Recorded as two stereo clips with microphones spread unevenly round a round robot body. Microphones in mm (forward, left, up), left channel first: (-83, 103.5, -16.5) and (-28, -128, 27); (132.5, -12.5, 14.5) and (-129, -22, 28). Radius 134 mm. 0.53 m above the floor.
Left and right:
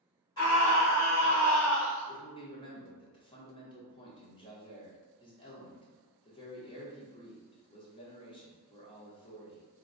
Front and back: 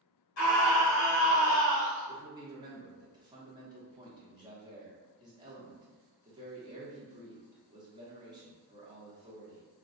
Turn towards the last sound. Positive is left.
turn(degrees=115)